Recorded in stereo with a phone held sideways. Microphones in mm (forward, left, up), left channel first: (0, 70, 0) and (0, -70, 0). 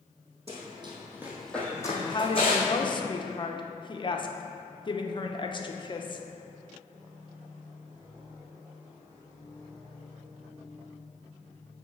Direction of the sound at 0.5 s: 50° right (ahead or behind).